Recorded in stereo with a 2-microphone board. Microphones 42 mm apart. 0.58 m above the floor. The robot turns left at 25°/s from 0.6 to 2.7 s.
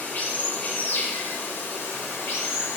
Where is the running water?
135° left, 0.8 m; by 2.8 s 80° left, 0.8 m.